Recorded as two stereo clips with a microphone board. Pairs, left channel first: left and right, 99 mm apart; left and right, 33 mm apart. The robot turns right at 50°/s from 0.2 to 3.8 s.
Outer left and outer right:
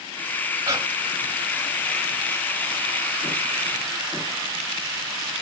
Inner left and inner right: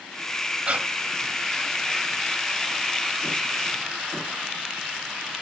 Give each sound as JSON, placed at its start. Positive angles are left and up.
{"t": 0.7, "sound": "breathing", "side_deg": -40, "distance_m": 2.5}